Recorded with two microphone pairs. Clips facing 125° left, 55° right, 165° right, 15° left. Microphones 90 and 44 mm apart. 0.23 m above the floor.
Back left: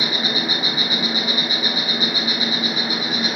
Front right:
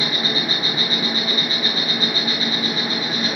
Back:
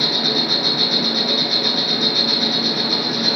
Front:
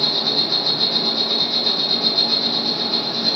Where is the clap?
No clap in this recording.